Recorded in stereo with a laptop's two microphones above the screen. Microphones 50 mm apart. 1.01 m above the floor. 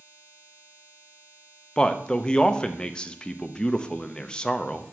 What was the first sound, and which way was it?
A man speaking, 20° left (ahead or behind).